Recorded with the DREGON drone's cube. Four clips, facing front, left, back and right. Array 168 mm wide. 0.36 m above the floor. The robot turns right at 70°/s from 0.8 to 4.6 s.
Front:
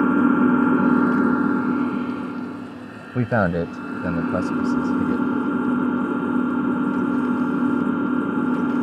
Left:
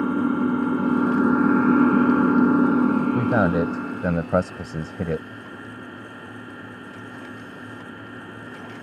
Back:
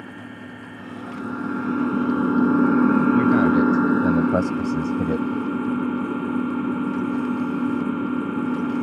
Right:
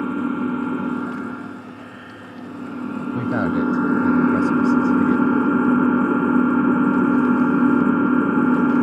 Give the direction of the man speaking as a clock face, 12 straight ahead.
11 o'clock.